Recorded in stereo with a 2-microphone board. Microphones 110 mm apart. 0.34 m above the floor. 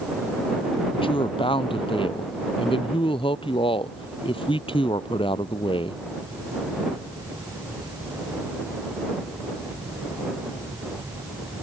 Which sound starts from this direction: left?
A woman speaking, at 0.9 s.